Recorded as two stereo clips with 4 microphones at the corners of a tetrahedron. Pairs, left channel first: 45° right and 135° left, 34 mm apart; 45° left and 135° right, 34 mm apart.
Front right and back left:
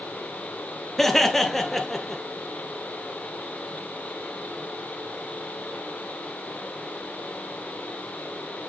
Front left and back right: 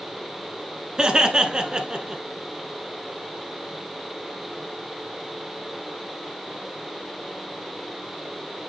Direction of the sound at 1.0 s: 110° right.